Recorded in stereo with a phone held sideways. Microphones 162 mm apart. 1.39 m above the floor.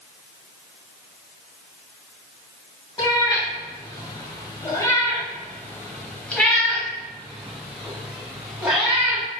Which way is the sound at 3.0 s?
25° left (ahead or behind).